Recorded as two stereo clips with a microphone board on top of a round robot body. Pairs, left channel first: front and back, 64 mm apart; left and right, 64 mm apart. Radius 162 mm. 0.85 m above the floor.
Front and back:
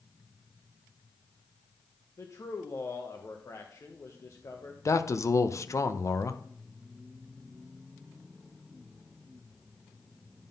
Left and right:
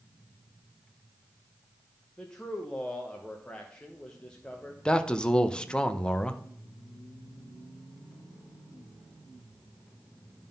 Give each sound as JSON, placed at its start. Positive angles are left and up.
{"t": 2.2, "sound": "a man speaking", "azimuth_deg": 15, "distance_m": 1.1}
{"t": 4.8, "sound": "a man speaking", "azimuth_deg": 15, "distance_m": 0.9}